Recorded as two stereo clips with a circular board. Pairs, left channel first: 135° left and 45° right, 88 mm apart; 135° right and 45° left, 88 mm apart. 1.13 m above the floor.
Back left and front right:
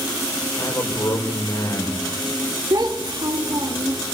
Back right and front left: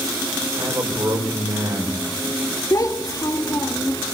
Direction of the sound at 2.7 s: 85° right.